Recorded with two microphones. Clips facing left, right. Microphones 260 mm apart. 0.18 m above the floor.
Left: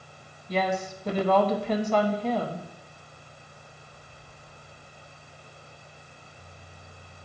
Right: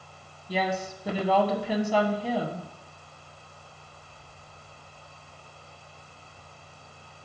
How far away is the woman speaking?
About 1.0 m.